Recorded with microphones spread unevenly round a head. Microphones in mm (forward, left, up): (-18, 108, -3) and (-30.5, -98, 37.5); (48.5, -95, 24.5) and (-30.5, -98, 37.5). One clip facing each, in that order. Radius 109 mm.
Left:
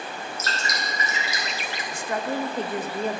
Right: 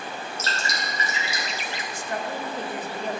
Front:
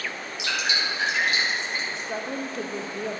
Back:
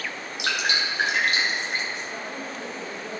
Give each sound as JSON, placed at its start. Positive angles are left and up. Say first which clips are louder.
{"t": 0.4, "sound": "dripping", "louder": "even, back 2 dB", "azimuth_deg": -150, "distance_m": 2.0}
{"t": 1.9, "sound": "a woman speaking", "louder": "left 4 dB, front 3 dB", "azimuth_deg": 55, "distance_m": 0.7}